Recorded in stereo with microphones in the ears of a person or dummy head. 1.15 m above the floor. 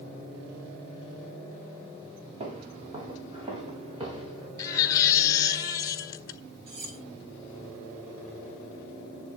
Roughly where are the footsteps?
Right.